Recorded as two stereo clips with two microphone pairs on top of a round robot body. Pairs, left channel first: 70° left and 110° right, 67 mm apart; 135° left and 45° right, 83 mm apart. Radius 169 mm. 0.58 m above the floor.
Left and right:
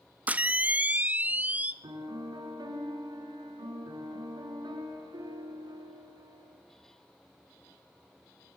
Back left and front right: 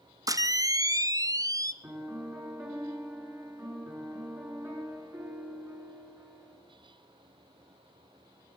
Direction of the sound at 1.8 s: 100° right.